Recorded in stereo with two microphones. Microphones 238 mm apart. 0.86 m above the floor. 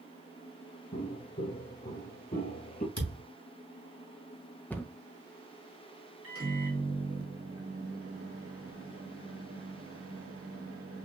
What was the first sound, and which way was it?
Footsteps, 45° left (ahead or behind).